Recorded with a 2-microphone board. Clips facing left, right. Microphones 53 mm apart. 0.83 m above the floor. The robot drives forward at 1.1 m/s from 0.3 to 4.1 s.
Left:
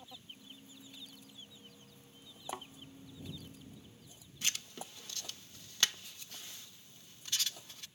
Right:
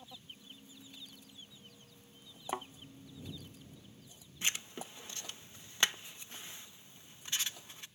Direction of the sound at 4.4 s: 25° right (ahead or behind).